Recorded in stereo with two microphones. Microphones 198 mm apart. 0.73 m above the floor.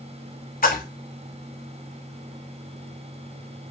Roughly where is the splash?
Left.